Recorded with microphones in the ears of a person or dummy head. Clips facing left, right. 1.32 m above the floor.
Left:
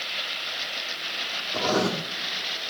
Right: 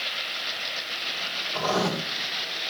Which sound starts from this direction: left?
Writing, at 1.5 s.